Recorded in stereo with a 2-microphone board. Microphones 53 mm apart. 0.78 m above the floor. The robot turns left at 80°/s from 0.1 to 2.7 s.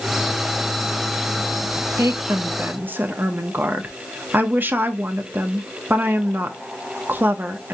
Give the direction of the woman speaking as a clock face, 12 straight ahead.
3 o'clock.